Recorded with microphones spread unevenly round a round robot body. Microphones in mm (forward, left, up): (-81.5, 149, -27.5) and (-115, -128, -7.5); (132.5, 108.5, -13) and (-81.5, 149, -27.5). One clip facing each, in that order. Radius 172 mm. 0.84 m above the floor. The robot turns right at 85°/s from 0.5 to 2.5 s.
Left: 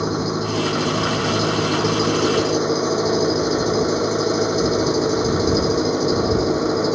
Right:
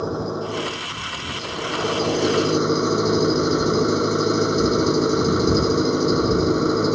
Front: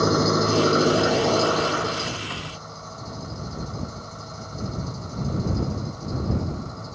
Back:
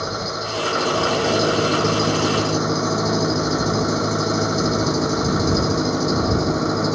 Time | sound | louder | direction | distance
0.0 | an engine running | left 3 dB, front 8 dB | 20° left | ?